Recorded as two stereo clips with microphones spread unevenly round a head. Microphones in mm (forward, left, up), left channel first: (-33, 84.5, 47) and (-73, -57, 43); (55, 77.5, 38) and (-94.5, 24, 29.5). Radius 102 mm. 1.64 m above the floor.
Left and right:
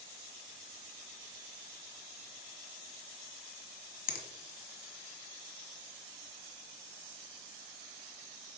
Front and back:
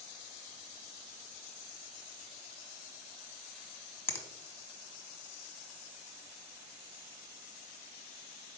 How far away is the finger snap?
About 1.3 m.